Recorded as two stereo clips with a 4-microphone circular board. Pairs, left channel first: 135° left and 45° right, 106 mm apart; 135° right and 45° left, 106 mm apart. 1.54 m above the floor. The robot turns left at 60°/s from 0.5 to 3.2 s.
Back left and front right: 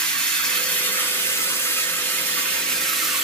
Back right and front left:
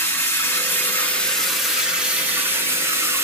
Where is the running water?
160° right, 0.8 m; by 3.3 s 35° left, 0.8 m.